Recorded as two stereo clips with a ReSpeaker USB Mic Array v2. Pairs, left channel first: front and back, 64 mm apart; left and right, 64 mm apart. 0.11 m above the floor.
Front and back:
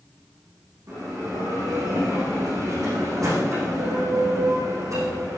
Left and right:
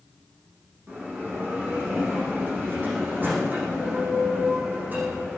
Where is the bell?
150° right, 6.5 m.